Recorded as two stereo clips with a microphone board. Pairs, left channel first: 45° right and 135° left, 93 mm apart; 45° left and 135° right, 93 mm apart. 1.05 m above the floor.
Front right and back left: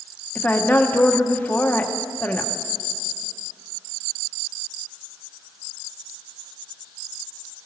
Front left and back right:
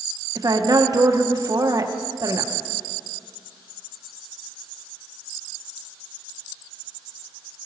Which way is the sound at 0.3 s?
110° right.